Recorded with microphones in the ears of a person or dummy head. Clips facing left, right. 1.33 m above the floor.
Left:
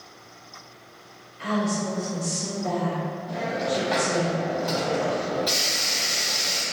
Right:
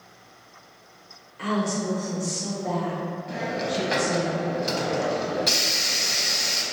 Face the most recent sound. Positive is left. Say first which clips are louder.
# left 2 dB
turn(degrees=-30)  # may be behind; listen again after turning